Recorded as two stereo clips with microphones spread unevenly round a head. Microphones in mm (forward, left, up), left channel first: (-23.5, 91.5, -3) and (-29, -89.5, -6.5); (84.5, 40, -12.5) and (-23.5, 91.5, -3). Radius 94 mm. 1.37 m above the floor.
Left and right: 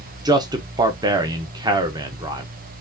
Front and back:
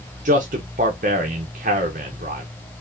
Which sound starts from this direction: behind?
A man speaking, at 0.2 s.